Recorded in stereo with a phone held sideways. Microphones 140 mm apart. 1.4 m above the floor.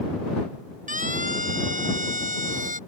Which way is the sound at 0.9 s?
70° right (ahead or behind).